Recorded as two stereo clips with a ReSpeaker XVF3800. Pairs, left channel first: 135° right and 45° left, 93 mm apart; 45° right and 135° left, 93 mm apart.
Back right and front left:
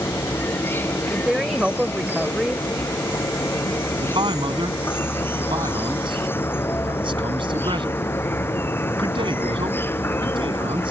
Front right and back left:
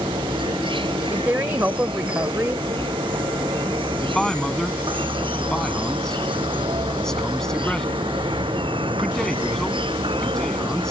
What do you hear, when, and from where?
0.0 s an insect: 160° left
1.1 s a woman speaking: 110° left
4.0 s a man speaking: 40° left